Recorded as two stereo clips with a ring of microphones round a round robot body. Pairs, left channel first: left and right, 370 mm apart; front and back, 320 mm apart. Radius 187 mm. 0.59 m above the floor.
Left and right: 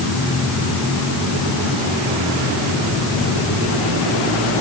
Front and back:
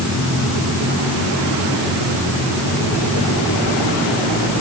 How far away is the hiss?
I don't hear a hiss.